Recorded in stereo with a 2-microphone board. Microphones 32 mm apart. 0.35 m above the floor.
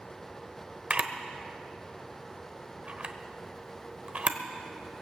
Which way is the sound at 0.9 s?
40° right (ahead or behind).